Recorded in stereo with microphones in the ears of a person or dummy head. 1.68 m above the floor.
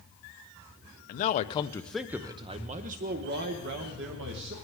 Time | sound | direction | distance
1.1 | a man speaking | 45° left (ahead or behind) | 0.8 m